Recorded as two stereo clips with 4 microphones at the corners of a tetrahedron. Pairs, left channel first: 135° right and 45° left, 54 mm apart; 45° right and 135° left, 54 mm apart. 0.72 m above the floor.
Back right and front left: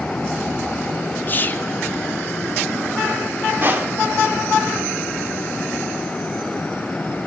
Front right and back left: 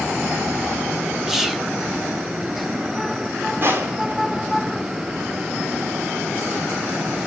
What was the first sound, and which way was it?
Whispering, 150° right.